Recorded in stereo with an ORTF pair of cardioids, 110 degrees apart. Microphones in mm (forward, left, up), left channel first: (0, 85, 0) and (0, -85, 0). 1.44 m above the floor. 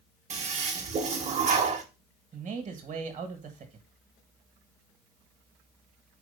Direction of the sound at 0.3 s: 40° right.